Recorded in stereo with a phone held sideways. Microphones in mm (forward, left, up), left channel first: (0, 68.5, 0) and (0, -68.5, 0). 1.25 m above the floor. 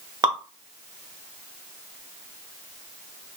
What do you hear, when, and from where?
0.2 s dripping: 35° right (ahead or behind), 0.9 m